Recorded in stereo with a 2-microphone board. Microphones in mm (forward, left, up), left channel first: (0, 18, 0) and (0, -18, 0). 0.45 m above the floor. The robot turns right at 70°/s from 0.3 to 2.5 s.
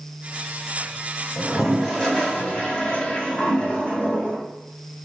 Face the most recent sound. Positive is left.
turn(degrees=55)